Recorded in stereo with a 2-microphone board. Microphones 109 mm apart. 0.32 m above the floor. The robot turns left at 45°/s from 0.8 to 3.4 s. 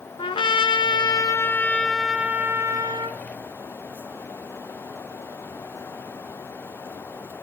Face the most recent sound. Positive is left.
turn(degrees=-65)